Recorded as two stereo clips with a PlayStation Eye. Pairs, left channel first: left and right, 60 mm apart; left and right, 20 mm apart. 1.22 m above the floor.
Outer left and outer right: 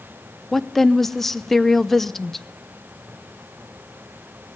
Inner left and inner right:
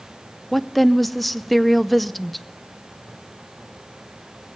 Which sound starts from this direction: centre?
A woman speaking, at 0.5 s.